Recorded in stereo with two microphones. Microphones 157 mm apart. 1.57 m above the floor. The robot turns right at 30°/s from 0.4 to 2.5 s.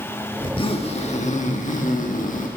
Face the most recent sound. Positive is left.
turn(degrees=100)